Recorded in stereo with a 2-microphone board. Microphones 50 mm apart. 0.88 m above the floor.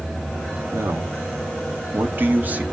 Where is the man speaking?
70° right (ahead or behind), 1.8 m; by 2.6 s 35° right (ahead or behind), 1.6 m.